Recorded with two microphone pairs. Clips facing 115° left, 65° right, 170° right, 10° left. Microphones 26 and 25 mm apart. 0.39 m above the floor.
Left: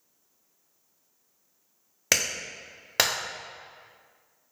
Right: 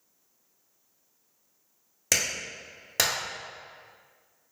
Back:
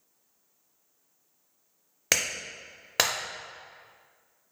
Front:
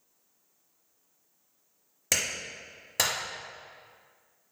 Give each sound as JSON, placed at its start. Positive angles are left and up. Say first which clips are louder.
{"t": 2.1, "sound": "a clap", "louder": "left 1 dB, back 2 dB", "azimuth_deg": 160, "distance_m": 1.0}